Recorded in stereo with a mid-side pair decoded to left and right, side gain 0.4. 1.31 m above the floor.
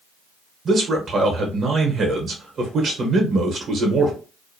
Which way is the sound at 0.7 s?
60° right.